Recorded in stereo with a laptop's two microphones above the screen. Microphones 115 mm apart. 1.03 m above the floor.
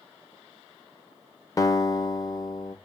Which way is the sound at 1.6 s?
30° left (ahead or behind).